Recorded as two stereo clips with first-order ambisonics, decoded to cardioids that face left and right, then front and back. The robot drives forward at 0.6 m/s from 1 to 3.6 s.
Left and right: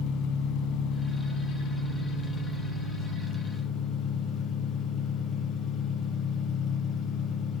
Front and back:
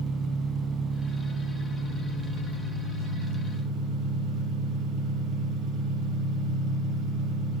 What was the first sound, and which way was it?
An engine running, 115° left.